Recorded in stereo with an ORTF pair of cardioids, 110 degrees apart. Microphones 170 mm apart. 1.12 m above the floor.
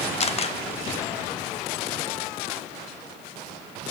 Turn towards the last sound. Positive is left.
turn(degrees=35)